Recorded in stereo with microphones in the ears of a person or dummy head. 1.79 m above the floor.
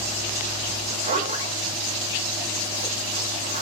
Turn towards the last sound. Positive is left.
turn(degrees=-35)  # may be behind; listen again after turning